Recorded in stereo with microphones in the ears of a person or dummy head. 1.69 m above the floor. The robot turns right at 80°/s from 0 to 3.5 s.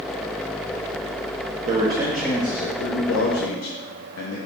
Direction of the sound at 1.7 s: 35° right.